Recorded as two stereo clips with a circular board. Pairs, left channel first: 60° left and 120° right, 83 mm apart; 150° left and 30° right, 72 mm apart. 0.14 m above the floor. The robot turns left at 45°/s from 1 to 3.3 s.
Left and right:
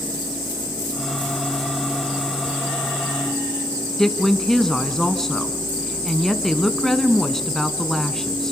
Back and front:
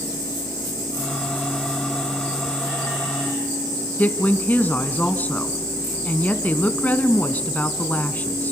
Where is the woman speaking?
140° left, 1.1 m.